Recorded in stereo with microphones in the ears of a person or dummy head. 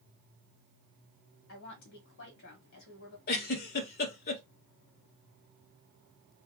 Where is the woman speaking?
65° left (ahead or behind), 1.2 m.